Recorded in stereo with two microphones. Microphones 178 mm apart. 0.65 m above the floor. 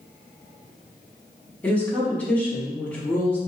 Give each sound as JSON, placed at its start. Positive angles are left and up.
{"t": 1.6, "sound": "a woman speaking", "side_deg": 10, "distance_m": 1.3}